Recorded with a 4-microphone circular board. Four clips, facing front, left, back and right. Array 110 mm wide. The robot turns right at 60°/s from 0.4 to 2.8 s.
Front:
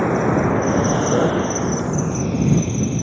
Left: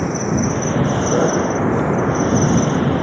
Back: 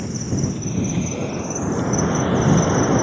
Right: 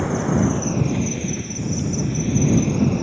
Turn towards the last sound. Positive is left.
turn(degrees=150)